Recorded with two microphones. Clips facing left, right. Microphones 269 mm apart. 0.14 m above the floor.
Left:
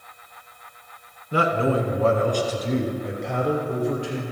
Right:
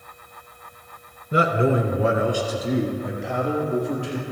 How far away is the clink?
No clink in this recording.